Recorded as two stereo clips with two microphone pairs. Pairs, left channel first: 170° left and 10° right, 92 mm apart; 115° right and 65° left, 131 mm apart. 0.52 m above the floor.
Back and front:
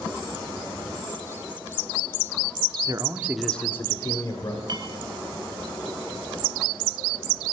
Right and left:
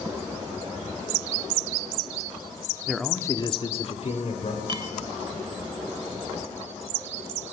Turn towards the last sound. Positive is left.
turn(degrees=15)